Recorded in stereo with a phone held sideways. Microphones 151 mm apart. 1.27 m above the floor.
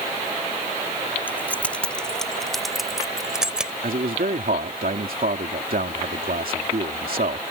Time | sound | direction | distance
1.3 | keys jangling | 15° left (ahead or behind) | ?
3.8 | a man speaking | 70° right (ahead or behind) | ?